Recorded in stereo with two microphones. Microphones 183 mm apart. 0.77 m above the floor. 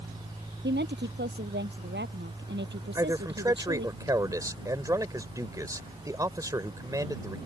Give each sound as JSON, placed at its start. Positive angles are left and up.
{"t": 0.6, "sound": "a woman speaking", "side_deg": -80}
{"t": 3.0, "sound": "a man speaking", "side_deg": -20}